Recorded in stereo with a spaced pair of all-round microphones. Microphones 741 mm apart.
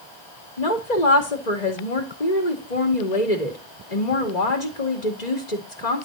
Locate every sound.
0.6 s a woman speaking: 65° left (ahead or behind), 2.5 m